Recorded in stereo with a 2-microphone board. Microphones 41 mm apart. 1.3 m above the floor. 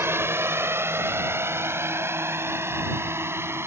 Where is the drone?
70° right (ahead or behind); by 3.7 s 75° right (ahead or behind).